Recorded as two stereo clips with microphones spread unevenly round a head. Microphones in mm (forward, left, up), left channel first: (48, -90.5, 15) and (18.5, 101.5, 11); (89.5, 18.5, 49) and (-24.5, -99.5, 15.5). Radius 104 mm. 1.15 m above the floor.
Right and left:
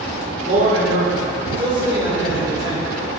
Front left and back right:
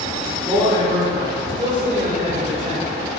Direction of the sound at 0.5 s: 155° left.